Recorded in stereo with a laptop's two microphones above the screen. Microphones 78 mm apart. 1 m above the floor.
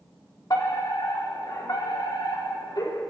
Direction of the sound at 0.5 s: 60° left (ahead or behind).